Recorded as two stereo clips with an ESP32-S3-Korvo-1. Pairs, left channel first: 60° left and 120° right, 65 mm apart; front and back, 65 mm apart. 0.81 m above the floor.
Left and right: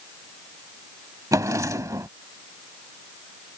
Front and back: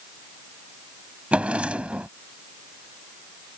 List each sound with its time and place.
1.3 s a drawer: 110° right